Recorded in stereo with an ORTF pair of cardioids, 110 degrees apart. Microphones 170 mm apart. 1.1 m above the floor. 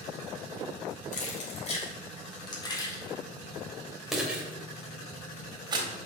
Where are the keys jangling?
50° left, 4 m; by 5.9 s 30° right, 4 m.